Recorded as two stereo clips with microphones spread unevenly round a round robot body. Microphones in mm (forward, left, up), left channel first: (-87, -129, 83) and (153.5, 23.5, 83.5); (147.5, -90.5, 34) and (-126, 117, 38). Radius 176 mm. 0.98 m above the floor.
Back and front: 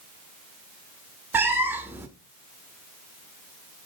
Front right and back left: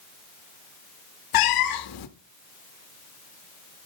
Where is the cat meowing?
50° right, 0.7 m.